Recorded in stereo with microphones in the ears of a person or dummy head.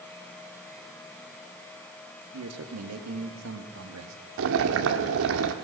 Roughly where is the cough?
I don't hear a cough.